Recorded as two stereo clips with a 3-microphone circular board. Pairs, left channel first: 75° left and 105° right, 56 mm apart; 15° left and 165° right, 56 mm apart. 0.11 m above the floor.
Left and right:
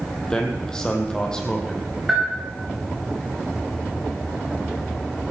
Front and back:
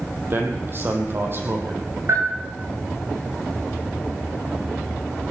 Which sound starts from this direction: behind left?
A man speaking, at 0.3 s.